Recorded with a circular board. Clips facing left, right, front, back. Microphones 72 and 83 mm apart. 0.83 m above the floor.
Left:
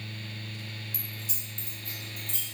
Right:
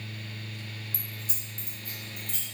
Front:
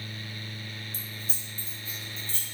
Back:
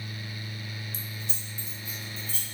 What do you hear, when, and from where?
0.9 s keys jangling: 35° right, 0.5 m; by 2.5 s 60° right, 1.5 m